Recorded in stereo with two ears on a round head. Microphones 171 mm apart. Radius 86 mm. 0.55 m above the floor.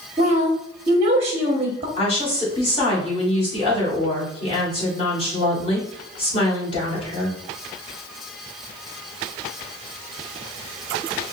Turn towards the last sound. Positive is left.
turn(degrees=30)  # may be behind; listen again after turning